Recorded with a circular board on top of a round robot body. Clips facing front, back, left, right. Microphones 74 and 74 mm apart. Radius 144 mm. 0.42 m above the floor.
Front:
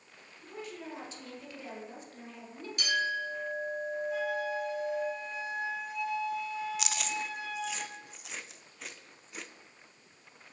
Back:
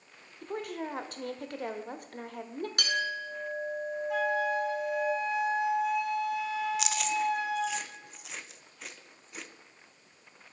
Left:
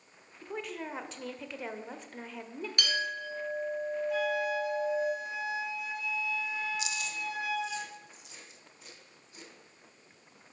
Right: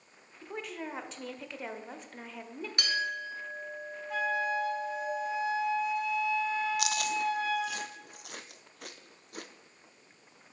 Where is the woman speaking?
Straight behind, 1.0 m.